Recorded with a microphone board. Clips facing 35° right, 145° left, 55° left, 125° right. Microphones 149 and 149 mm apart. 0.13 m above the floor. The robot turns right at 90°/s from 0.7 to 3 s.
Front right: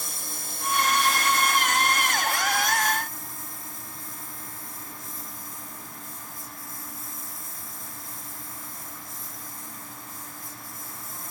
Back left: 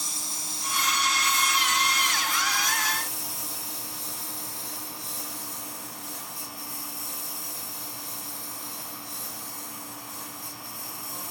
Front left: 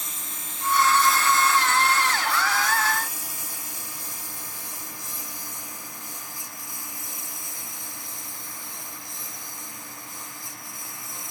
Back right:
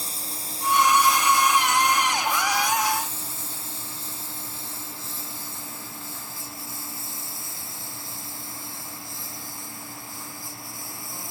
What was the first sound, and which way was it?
A lawn mower, 70° right.